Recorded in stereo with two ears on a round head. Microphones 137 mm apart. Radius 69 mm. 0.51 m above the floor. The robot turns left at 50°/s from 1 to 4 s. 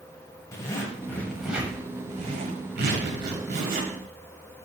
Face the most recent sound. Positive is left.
turn(degrees=-130)